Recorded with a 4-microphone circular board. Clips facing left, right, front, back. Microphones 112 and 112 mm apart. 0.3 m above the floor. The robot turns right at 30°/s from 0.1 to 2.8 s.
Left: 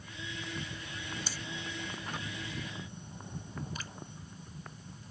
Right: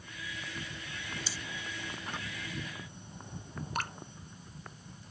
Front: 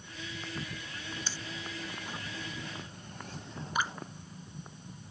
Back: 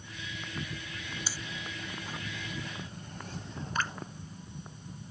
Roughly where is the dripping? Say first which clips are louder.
Right 9 dB, front 1 dB; right.